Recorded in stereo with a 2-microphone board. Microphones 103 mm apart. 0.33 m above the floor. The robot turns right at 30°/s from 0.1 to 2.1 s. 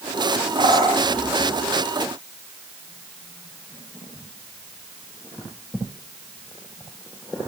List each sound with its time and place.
0.6 s a bird: 60° right (ahead or behind), 2 m; by 1.1 s 65° right (ahead or behind), 2 m